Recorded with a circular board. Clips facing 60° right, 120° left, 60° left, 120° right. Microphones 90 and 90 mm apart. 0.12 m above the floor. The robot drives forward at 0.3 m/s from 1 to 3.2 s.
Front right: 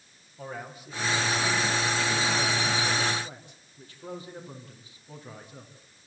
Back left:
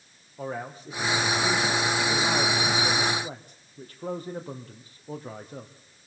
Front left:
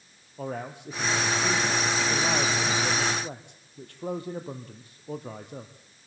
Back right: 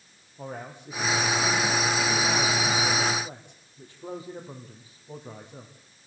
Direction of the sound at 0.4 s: 70° left.